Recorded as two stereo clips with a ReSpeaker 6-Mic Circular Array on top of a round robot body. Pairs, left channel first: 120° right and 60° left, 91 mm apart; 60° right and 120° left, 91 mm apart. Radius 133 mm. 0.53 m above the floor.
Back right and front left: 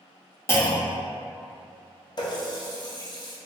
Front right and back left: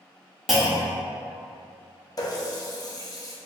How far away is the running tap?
About 0.8 m.